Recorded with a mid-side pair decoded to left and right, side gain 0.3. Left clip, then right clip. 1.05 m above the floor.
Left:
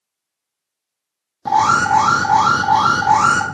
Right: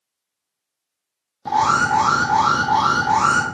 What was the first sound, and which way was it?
An alarm, 50° left.